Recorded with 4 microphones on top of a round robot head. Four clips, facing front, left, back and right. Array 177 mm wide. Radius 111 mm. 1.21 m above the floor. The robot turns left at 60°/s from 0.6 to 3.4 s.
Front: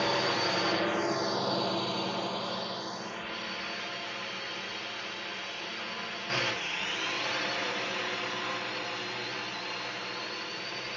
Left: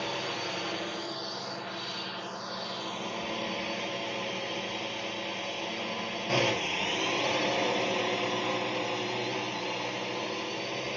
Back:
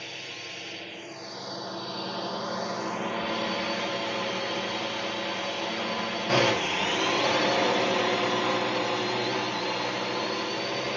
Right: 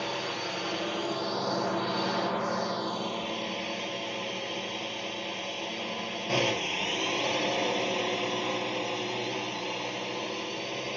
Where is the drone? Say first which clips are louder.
Right 1 dB, front 14 dB; 5° right; by 11.0 s 170° right.